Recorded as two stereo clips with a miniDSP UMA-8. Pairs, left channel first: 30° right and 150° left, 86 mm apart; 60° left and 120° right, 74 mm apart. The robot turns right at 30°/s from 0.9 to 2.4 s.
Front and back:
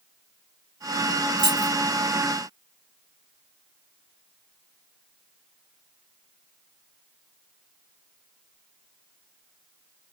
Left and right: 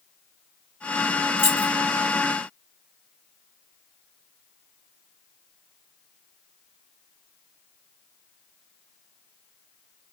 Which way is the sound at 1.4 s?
120° left.